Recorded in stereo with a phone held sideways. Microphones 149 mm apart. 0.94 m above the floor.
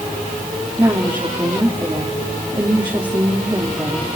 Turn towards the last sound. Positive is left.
turn(degrees=-30)  # may be behind; listen again after turning